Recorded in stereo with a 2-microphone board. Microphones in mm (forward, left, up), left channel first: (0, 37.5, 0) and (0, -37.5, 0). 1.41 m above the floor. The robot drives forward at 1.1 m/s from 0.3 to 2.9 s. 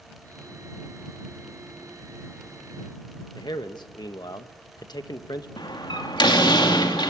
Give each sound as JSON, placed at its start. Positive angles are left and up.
{"t": 3.4, "sound": "a man speaking", "side_deg": 65, "distance_m": 1.2}
{"t": 5.6, "sound": "a door slam", "side_deg": 85, "distance_m": 2.5}